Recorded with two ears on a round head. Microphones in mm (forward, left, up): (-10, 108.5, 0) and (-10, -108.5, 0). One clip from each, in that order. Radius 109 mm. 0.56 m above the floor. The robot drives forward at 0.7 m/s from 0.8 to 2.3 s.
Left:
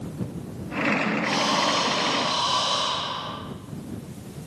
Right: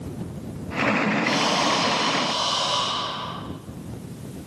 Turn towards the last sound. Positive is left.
turn(degrees=0)  # may be behind; listen again after turning